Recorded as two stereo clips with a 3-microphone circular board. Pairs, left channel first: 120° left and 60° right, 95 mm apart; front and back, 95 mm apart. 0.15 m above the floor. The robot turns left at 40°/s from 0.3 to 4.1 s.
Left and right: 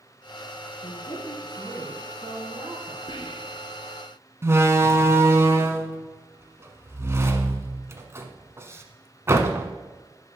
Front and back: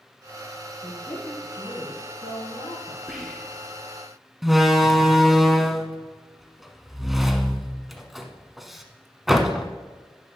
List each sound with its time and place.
0.8 s a woman speaking: 85° left, 3 m; by 3.0 s straight ahead, 3 m
3.1 s whispering: 95° left, 2.5 m; by 3.8 s 70° left, 2.5 m
4.4 s a door slam: 90° right, 1.1 m